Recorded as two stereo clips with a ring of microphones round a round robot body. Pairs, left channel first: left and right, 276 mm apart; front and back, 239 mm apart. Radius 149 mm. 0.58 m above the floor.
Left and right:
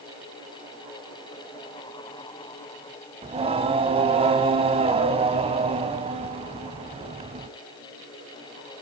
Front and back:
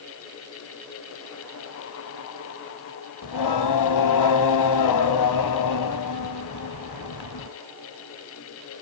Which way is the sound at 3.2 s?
20° right.